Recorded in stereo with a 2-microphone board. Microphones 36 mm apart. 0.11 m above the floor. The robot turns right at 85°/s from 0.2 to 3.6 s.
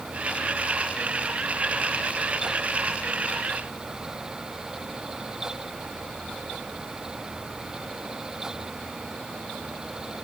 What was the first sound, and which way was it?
Only background noise.